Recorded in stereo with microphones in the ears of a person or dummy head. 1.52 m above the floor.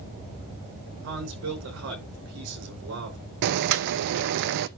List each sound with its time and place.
1.0 s a man speaking: 65° right (ahead or behind), 5 m
3.4 s boiling: 55° right (ahead or behind), 0.7 m